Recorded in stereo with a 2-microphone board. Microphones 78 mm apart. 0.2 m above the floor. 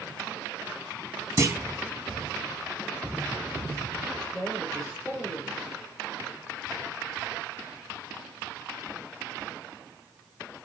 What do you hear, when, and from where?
1.4 s a clunk: 35° right (ahead or behind), 0.9 m
4.3 s a woman speaking: 15° right (ahead or behind), 6 m